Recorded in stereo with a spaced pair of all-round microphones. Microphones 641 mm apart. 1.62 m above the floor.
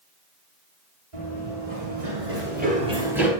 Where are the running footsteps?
40° right (ahead or behind), 2.5 m; by 3.3 s centre (ahead or behind), 2.0 m.